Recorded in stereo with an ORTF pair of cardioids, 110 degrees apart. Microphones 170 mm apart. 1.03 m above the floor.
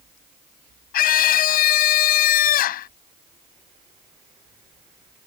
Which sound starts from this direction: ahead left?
A scream, at 0.9 s.